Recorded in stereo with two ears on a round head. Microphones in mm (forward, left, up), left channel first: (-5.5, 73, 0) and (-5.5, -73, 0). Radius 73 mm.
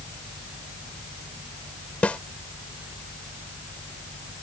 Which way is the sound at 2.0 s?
10° left (ahead or behind).